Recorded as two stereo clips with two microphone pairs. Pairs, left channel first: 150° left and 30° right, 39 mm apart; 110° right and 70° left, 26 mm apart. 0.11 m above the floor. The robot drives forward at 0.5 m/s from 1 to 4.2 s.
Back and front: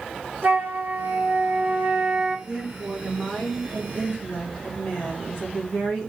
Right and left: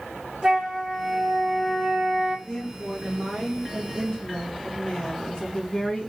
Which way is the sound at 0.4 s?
5° left.